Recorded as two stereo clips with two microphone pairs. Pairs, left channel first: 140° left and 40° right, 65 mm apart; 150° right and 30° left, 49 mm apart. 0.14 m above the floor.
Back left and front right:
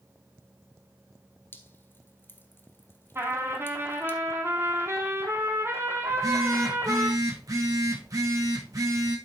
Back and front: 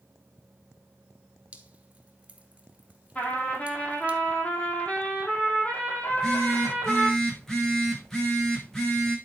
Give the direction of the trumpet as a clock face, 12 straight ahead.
3 o'clock.